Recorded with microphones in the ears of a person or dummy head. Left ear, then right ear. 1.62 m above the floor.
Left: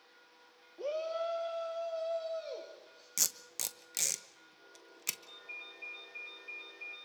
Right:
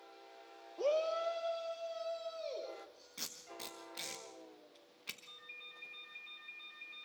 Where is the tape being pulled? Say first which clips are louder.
Left 10 dB; 70° left (ahead or behind), 1.2 m.